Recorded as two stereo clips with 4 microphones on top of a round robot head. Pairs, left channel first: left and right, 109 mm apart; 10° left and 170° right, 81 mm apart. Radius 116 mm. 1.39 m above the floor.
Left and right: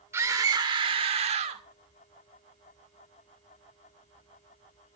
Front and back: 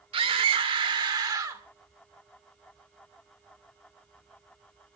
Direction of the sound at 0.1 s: 160° right.